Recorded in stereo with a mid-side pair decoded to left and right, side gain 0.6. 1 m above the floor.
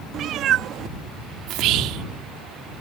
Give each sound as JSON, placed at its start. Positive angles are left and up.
{"t": 0.1, "sound": "a cat meowing", "azimuth_deg": -55}
{"t": 1.5, "sound": "whispering", "azimuth_deg": -65}